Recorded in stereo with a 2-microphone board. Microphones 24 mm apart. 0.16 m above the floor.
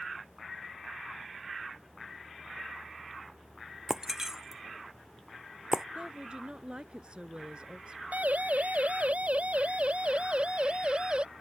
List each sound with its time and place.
3.9 s breaking glass: 20° right (ahead or behind)
6.0 s a woman speaking: 40° right (ahead or behind)
8.1 s a siren: 70° right (ahead or behind); by 11.2 s 40° right (ahead or behind)